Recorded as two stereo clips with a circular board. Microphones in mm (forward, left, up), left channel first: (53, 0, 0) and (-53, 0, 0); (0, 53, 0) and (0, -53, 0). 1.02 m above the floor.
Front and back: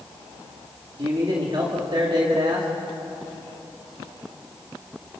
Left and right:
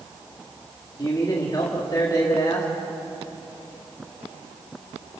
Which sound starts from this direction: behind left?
A man speaking, at 1.0 s.